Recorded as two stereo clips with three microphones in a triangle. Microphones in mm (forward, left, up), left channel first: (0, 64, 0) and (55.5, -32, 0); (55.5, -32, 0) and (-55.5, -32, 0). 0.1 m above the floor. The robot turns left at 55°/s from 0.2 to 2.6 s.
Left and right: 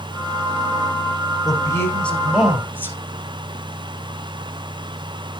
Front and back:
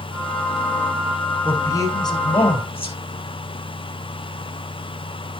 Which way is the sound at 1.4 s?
75° left.